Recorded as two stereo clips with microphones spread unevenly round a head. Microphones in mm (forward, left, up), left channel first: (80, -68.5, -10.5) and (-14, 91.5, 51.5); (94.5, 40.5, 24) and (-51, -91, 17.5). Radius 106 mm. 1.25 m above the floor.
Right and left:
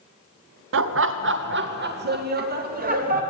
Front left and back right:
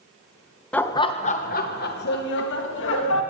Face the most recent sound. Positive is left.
turn(degrees=75)